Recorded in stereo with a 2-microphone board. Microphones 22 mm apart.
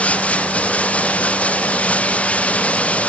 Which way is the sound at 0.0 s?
75° left (ahead or behind).